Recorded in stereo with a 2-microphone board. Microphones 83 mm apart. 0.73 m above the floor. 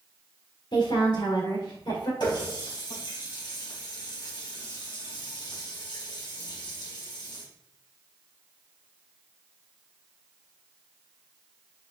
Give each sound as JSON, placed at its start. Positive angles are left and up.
{"t": 0.7, "sound": "a woman speaking", "side_deg": 65, "distance_m": 2.5}
{"t": 2.2, "sound": "a running tap", "side_deg": 65, "distance_m": 3.5}